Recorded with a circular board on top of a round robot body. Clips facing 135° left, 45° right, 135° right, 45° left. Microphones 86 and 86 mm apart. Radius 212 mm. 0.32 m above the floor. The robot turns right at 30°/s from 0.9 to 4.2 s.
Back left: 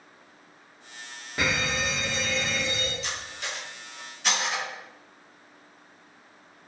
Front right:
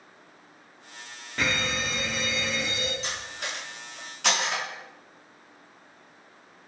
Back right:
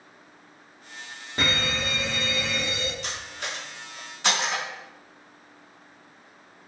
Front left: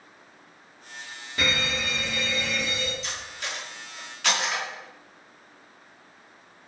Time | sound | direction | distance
1.4 | a fire alarm | 150° right | 2.5 m
3.0 | cutlery clinking | 100° right | 3.5 m